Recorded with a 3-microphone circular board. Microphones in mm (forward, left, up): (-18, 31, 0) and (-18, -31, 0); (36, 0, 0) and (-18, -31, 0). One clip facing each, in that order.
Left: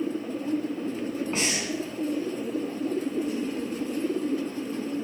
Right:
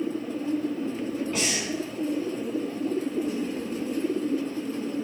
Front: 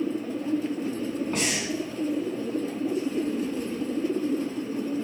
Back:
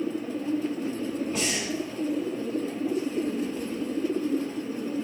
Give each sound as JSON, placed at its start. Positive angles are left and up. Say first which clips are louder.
{"t": 1.3, "sound": "breathing", "louder": "even, front 1 dB", "azimuth_deg": 40, "distance_m": 3.0}